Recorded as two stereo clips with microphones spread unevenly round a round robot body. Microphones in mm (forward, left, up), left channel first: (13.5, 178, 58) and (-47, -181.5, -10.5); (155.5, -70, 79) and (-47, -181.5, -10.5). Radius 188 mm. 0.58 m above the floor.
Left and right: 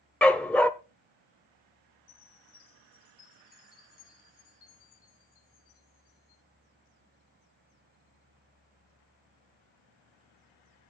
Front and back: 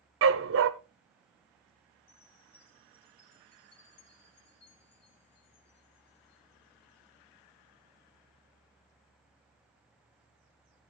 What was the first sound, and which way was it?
A dog barking, 170° left.